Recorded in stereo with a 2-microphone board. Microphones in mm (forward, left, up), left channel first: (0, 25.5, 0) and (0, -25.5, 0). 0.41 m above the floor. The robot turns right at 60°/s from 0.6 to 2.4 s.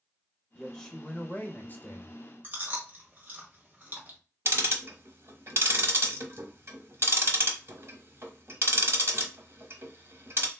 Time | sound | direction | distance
0.6 | a man speaking | 10° left | 0.9 m
2.4 | chewing | 35° right (ahead or behind) | 1.2 m
4.5 | ticking | 55° right (ahead or behind) | 0.8 m